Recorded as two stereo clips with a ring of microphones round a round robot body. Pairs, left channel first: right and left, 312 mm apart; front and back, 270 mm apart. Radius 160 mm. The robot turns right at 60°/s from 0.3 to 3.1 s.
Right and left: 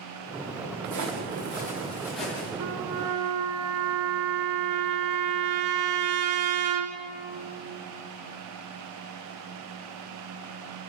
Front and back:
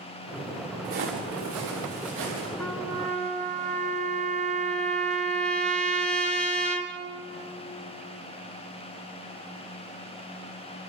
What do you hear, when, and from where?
0.8 s footsteps: 120° left, 5 m; by 2.5 s 165° right, 6 m
2.6 s a trumpet: 85° left, 2 m; by 7.0 s 115° left, 2 m